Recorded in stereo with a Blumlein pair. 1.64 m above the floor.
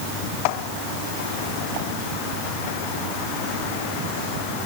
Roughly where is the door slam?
I don't hear a door slam.